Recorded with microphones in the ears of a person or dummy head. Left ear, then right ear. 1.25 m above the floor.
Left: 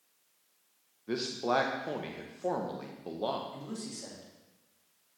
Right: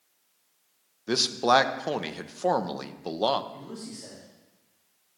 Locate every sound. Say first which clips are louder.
1.1 s a man speaking: right 9 dB; 45° right (ahead or behind), 0.5 m
3.5 s a man speaking: right 1 dB; 45° left (ahead or behind), 2 m